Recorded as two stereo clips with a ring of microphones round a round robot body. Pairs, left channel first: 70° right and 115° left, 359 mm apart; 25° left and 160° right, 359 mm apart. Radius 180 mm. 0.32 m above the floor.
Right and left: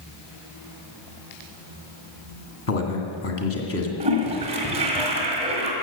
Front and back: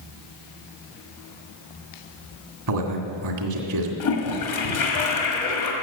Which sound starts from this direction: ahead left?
A toilet flushing, at 4.0 s.